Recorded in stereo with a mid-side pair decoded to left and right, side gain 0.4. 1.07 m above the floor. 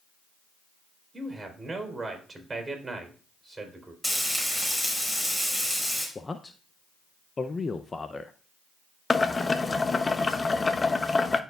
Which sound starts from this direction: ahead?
Frying, at 4.0 s.